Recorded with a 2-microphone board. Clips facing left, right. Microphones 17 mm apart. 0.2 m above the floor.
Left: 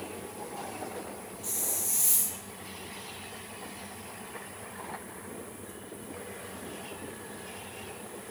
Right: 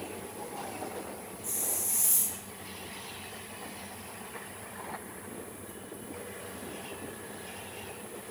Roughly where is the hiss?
Left.